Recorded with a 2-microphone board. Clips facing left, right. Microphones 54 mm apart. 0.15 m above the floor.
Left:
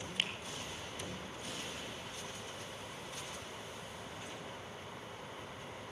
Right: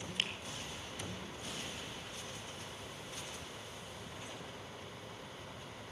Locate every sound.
0.2 s a finger snap: 5° left (ahead or behind), 3 m